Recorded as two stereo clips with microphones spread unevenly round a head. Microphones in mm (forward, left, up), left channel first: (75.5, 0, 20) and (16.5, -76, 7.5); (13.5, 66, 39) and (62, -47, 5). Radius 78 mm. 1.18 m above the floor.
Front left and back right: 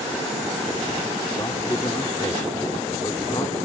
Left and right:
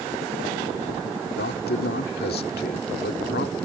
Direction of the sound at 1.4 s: 120° left.